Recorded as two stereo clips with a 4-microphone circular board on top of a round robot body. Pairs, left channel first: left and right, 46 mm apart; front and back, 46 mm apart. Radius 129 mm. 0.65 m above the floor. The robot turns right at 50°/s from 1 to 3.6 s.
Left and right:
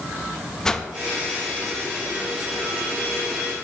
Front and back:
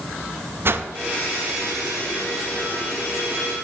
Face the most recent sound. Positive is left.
turn(degrees=-65)